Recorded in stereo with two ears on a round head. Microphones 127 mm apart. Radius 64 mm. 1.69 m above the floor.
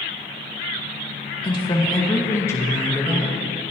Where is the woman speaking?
40° left (ahead or behind), 2 m; by 3.7 s 5° left (ahead or behind), 2.5 m.